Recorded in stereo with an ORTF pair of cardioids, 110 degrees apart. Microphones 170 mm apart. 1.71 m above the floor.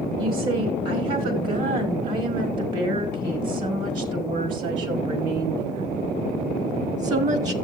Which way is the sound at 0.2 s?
60° right.